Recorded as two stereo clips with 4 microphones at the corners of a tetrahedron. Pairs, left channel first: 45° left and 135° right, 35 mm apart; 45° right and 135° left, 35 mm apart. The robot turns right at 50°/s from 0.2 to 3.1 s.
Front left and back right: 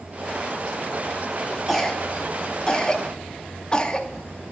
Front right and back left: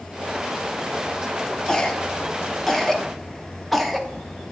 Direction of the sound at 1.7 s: 35° right.